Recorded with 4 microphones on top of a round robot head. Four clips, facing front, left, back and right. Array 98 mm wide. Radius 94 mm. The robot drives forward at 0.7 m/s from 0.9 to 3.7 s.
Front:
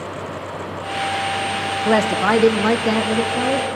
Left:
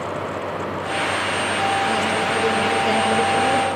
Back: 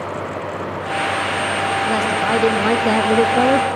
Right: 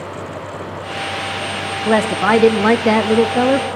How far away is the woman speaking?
About 1.1 m.